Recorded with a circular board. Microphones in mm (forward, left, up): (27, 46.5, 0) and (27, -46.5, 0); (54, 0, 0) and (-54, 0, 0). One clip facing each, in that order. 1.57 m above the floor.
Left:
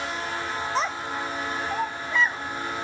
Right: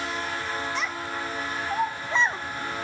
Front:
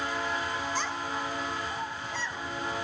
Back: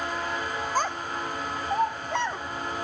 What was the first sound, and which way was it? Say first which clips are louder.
A child speaking: left 3 dB, back 4 dB; 140° left.